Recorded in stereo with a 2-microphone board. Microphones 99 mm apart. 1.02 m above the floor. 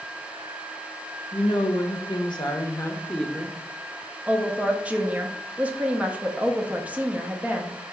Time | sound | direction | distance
1.3 | a woman speaking | 60° left (ahead or behind) | 1.1 m
4.3 | a woman speaking | 15° right (ahead or behind) | 0.6 m